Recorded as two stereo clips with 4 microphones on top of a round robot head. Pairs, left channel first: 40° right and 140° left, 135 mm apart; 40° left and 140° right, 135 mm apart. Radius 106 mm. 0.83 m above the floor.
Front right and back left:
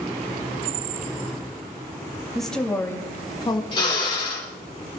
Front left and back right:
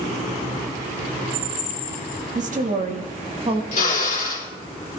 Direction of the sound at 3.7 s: 15° left.